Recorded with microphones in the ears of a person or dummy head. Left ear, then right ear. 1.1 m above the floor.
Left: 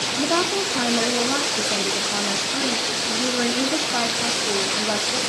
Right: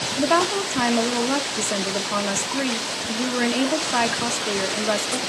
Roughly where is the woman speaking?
Right.